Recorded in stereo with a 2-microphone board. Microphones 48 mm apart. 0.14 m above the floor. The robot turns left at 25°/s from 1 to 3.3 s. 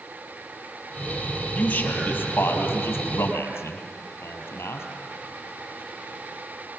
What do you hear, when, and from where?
1.5 s a man speaking: 30° left (ahead or behind), 3.5 m; by 4.9 s 65° left (ahead or behind), 3.5 m